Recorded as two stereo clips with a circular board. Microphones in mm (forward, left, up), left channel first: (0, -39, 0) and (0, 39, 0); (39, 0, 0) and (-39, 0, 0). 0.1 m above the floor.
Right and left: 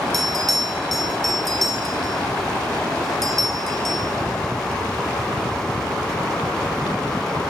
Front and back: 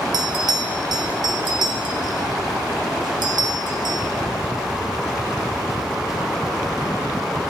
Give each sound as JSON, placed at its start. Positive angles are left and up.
{"t": 0.1, "sound": "a bell", "azimuth_deg": 180, "distance_m": 0.6}